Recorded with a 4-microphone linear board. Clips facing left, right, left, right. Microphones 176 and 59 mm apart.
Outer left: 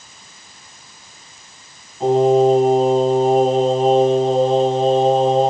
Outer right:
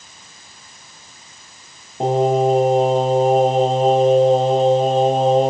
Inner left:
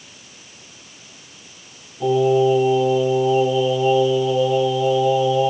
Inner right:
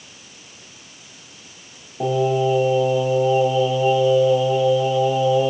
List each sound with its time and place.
2.0 s singing: 75° right (ahead or behind), 3.5 m